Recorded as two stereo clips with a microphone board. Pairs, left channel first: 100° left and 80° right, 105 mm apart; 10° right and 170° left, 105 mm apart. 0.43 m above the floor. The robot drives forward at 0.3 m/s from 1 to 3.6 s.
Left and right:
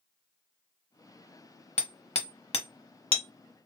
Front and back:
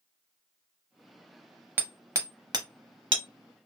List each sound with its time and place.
1.8 s hammering: 105° left, 0.6 m; by 3.7 s 140° left, 0.9 m